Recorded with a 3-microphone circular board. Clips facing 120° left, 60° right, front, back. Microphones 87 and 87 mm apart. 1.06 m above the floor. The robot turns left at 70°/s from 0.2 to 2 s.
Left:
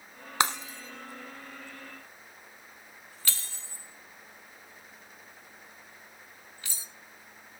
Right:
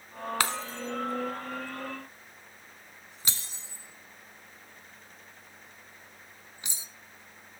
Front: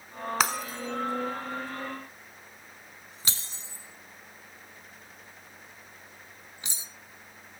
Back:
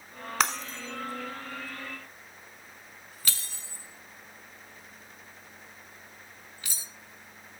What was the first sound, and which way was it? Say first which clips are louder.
Breaking glass: left 4 dB, even; 85° left.